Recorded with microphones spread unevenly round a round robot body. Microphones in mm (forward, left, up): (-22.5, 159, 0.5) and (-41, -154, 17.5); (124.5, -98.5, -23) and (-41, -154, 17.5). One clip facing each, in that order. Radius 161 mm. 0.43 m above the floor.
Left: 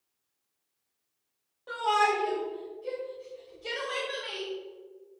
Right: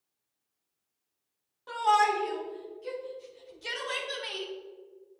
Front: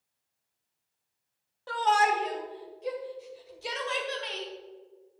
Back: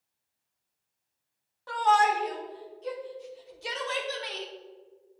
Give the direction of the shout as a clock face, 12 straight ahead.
1 o'clock.